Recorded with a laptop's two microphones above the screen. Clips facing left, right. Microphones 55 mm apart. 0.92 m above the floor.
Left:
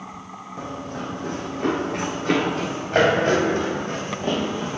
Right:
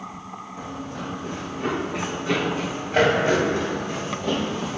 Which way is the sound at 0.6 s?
55° left (ahead or behind).